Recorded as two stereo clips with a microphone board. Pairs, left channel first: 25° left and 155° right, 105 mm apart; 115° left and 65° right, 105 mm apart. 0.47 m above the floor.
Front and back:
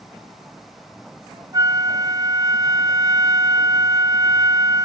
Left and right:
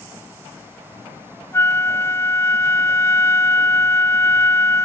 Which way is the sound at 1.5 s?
170° left.